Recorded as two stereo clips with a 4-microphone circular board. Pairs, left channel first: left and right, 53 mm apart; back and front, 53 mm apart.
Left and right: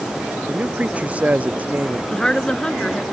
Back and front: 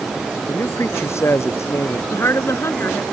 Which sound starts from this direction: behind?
A woman speaking, at 2.1 s.